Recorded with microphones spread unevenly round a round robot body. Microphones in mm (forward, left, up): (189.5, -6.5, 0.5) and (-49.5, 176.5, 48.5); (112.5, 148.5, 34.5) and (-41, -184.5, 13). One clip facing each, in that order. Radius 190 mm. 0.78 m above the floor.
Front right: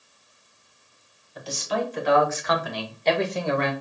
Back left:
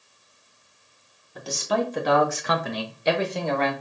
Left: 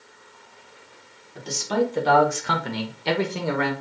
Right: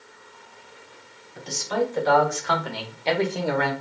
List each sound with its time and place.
1.4 s a man speaking: 110° left, 1.5 m; by 3.7 s 35° right, 0.9 m